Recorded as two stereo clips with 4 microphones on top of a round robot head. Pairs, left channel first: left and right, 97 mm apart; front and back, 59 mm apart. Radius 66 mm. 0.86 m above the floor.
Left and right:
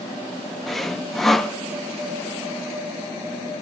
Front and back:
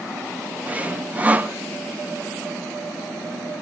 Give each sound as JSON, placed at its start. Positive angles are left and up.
{"t": 0.7, "sound": "sawing", "azimuth_deg": 175, "distance_m": 1.0}